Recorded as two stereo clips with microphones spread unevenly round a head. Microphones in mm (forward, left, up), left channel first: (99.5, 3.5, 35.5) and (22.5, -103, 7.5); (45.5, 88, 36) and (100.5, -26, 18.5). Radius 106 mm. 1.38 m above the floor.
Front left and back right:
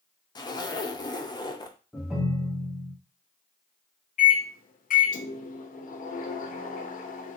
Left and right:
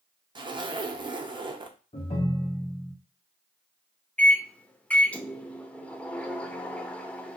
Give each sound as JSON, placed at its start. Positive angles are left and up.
{"t": 0.3, "sound": "a zipper", "azimuth_deg": -10, "distance_m": 0.6}
{"t": 1.9, "sound": "a ringtone", "azimuth_deg": 140, "distance_m": 0.6}
{"t": 4.2, "sound": "a microwave", "azimuth_deg": 35, "distance_m": 0.6}